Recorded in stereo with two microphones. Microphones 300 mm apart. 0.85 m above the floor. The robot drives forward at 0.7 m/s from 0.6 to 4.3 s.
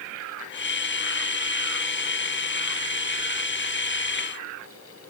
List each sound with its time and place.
Only background noise.